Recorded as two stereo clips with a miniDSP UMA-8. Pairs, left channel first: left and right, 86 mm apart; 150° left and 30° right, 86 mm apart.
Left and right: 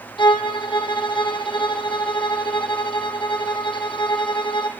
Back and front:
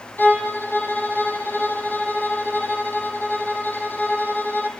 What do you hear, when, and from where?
0.2 s a violin: 85° left, 3 m